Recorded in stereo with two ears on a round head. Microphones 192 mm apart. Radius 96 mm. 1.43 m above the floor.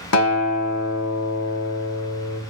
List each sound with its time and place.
0.1 s a guitar: 80° left, 1.3 m